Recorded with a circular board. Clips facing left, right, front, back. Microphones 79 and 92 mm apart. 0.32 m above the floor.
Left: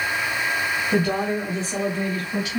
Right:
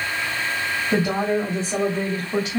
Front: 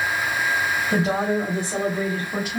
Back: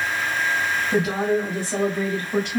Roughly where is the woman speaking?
Ahead right.